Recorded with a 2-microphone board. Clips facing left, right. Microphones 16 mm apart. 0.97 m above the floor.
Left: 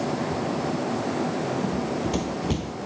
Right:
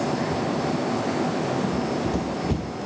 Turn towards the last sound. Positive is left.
turn(degrees=35)  # may be behind; listen again after turning